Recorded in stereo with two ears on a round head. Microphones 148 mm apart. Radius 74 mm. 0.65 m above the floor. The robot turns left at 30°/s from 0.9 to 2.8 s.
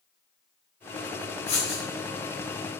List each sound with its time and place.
1.5 s writing: 45° left (ahead or behind), 4.5 m; by 1.8 s 35° left (ahead or behind), 4.5 m